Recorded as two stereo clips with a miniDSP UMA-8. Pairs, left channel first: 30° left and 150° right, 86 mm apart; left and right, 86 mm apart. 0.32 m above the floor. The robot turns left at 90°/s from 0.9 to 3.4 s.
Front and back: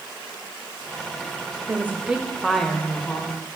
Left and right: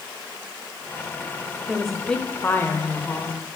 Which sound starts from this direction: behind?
A woman speaking, at 1.7 s.